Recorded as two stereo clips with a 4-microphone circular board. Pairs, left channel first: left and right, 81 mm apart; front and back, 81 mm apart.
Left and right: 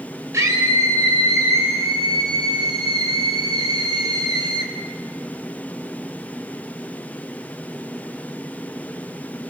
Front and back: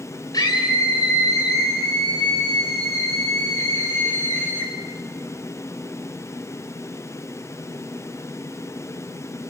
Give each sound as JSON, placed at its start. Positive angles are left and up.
{"t": 0.3, "sound": "a scream", "azimuth_deg": -40, "distance_m": 5.5}